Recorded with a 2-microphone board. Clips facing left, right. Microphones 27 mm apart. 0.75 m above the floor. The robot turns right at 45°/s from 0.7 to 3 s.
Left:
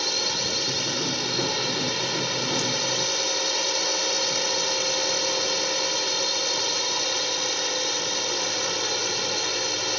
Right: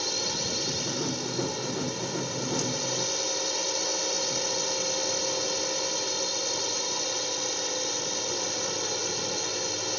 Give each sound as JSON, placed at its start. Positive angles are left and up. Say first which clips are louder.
{"t": 0.0, "sound": "a drone", "louder": "left 5 dB", "azimuth_deg": 35}